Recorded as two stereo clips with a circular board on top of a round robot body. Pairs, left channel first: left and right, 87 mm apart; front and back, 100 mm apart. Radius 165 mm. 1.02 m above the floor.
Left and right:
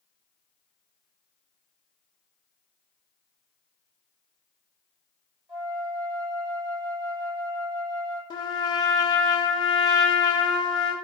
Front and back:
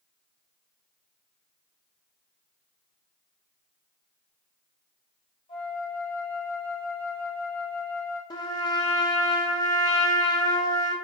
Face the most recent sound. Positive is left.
turn(degrees=50)